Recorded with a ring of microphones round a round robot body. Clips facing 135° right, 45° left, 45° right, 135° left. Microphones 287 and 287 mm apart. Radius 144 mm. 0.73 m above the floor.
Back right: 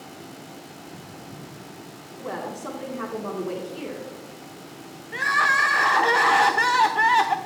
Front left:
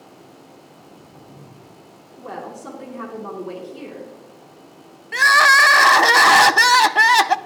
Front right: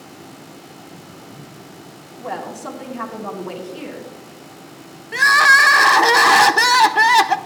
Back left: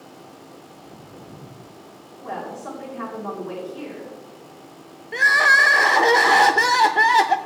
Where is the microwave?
No microwave in this recording.